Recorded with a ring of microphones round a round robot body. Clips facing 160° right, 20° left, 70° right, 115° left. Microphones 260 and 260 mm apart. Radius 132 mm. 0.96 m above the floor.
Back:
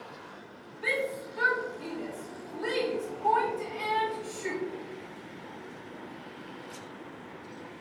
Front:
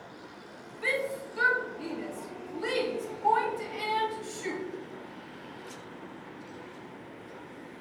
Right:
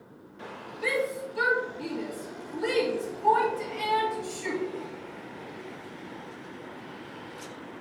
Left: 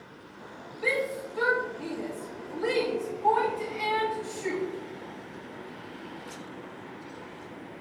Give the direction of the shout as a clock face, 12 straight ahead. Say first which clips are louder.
Even, right 1 dB; 12 o'clock.